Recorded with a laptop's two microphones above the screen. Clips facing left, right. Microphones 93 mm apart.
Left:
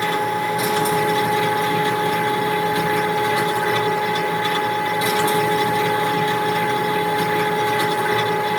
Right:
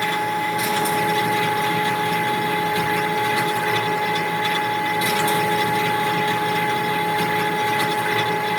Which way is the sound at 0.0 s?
30° left (ahead or behind).